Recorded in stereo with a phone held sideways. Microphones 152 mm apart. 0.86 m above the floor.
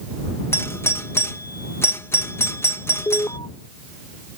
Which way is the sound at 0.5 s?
15° left (ahead or behind).